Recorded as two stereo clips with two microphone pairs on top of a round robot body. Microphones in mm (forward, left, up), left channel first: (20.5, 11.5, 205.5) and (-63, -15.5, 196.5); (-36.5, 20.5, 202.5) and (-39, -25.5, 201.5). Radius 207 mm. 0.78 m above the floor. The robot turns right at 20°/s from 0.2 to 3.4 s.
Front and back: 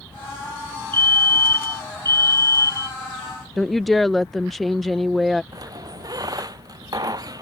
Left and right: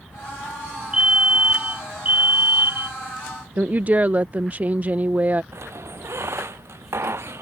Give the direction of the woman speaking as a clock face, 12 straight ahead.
3 o'clock.